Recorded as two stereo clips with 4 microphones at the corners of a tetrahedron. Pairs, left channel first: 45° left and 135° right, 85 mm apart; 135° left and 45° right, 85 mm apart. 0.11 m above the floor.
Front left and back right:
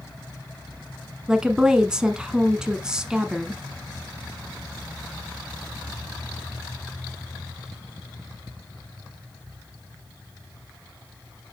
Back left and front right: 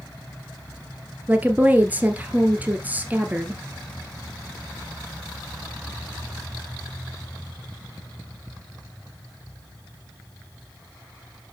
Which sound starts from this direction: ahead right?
A woman speaking, at 1.3 s.